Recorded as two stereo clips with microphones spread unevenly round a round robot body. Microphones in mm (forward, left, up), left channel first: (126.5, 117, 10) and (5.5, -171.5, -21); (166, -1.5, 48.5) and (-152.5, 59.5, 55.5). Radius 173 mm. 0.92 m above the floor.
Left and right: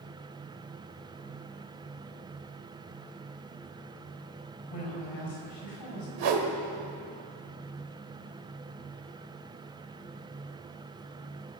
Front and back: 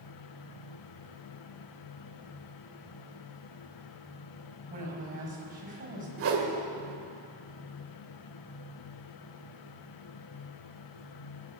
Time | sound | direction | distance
4.7 | a woman speaking | 105° left | 5.5 m
6.2 | a whoosh | 140° right | 1.9 m